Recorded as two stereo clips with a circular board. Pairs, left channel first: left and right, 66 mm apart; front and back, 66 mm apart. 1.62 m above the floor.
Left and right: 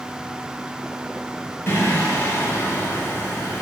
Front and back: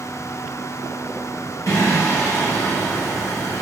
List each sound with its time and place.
1.7 s singing: 35° left, 6 m